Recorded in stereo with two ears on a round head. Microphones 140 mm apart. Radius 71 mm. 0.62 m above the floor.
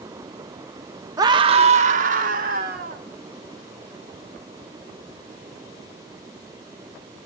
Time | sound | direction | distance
1.2 | a scream | 20° right (ahead or behind) | 0.7 m